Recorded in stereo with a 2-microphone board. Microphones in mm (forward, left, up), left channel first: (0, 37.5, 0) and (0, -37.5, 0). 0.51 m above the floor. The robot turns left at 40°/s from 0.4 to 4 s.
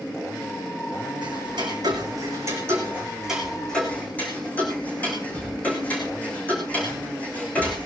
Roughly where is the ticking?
Right.